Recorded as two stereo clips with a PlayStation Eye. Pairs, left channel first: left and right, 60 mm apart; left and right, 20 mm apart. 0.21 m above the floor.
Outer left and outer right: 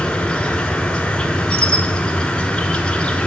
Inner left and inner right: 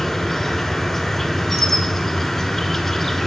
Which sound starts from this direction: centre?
An insect, at 0.0 s.